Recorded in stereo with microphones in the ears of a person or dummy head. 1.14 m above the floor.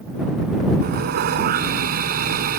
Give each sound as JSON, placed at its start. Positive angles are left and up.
{"t": 0.8, "sound": "sawing", "side_deg": -50}